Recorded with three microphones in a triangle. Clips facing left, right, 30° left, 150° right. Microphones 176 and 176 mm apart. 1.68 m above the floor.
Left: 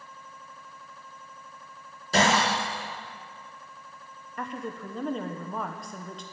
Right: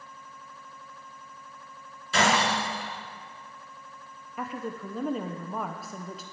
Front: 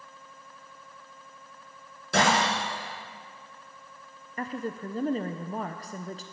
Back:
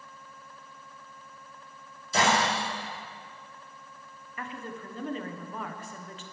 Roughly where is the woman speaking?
Ahead.